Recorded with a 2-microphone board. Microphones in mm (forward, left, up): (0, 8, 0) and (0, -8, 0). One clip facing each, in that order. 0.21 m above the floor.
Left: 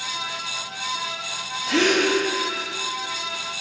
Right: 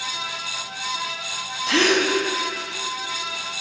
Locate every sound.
1.7 s a gasp: 40° right (ahead or behind), 0.8 m